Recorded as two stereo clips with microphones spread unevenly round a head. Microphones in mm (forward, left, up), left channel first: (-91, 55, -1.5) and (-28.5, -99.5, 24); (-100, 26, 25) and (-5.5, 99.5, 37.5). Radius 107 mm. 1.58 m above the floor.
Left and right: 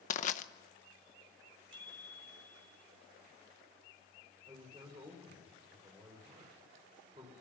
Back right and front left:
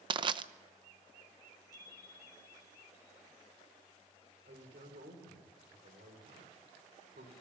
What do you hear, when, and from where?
0.1 s crushing: 60° left, 0.8 m
1.7 s a bicycle bell: 65° right, 4.5 m
4.5 s a man speaking: 5° left, 5.5 m